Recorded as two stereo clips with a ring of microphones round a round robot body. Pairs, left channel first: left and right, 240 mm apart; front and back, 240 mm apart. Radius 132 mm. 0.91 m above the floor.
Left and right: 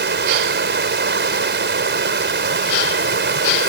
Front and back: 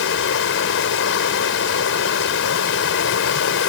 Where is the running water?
45° right.